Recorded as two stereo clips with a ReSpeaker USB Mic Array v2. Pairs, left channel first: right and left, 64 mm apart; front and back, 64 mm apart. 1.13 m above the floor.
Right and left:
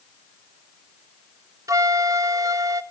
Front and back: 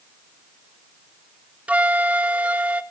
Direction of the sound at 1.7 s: 115° left.